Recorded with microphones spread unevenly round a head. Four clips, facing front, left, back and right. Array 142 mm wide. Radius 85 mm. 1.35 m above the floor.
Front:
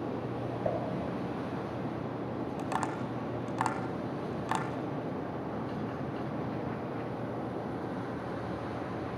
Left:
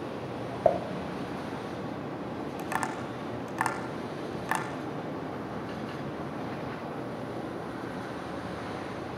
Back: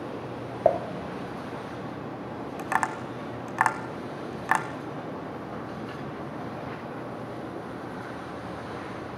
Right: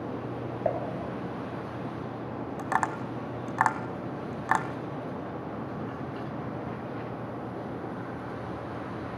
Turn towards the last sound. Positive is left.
turn(degrees=-150)